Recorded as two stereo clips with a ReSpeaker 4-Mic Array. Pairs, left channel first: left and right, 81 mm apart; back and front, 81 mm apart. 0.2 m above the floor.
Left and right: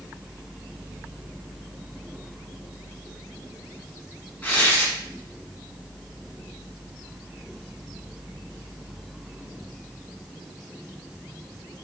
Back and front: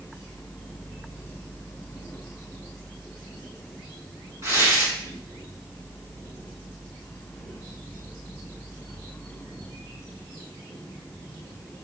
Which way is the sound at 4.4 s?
30° left.